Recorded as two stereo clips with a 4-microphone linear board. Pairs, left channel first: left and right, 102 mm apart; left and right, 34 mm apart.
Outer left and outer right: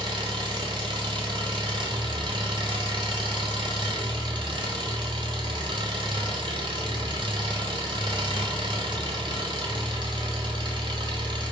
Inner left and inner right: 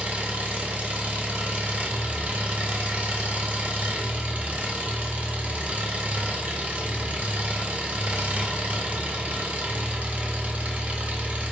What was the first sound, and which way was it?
An engine running, 50° right (ahead or behind).